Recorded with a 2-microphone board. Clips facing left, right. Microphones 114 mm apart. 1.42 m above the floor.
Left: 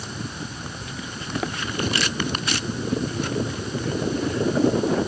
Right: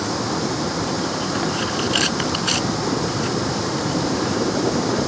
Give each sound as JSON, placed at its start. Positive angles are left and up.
{"t": 0.0, "sound": "running water", "side_deg": -85}